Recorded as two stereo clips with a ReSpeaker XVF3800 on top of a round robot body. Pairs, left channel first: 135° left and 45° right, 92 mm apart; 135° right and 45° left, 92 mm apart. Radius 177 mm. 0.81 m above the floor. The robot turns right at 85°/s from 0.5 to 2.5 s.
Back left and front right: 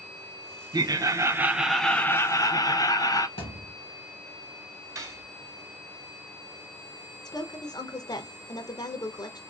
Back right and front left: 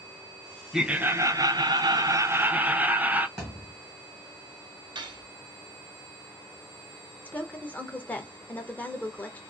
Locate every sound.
0.7 s laughter: 40° right, 0.7 m; by 3.3 s 110° left, 0.7 m
3.4 s a thud: 130° left, 0.7 m
5.0 s cutlery clinking: 10° left, 0.6 m
7.2 s a woman speaking: 160° left, 0.8 m